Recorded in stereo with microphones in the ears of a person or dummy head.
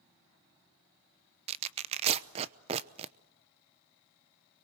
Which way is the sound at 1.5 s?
35° right (ahead or behind).